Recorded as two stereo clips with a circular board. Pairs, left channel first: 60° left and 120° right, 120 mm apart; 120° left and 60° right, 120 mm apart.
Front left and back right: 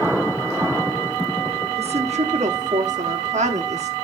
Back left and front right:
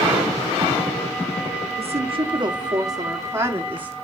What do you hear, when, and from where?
1.8 s a woman speaking: 90° right, 1.7 m; by 3.9 s 140° right, 2.5 m